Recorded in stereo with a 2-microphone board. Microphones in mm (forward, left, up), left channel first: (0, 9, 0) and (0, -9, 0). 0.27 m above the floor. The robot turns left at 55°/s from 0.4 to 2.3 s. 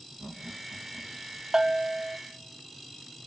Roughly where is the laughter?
Centre.